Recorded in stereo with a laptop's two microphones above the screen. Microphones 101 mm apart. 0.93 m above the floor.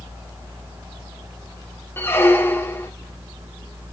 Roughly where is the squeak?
Left.